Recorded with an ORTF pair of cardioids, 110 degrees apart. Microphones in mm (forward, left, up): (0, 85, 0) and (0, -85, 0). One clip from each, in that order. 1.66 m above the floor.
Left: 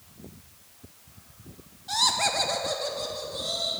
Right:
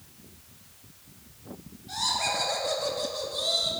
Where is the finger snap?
No finger snap in this recording.